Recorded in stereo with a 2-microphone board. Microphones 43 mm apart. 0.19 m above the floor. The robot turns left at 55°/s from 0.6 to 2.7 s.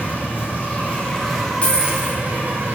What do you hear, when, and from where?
0.0 s an insect: 50° left, 2.5 m; by 2.8 s 65° right, 2.5 m
1.6 s a dropped coin: 150° left, 3 m; by 2.2 s 120° left, 3 m